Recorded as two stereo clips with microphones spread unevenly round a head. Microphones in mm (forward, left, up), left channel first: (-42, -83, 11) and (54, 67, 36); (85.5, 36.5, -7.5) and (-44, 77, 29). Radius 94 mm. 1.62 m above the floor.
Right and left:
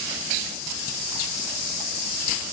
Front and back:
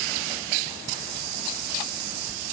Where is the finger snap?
I don't hear a finger snap.